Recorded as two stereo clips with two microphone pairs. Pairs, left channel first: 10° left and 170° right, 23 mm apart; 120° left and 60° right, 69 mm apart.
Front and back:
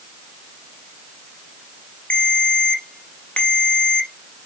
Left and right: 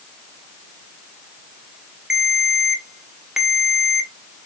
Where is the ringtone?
20° left, 1.0 m.